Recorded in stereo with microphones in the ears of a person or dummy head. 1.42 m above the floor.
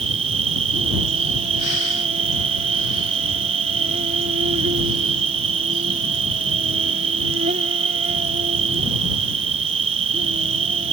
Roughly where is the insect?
Right.